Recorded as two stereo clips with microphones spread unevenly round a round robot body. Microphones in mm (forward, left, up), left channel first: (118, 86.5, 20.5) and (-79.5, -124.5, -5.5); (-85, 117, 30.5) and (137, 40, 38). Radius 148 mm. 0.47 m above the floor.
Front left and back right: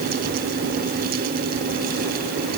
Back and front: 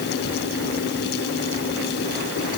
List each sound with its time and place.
Only background noise.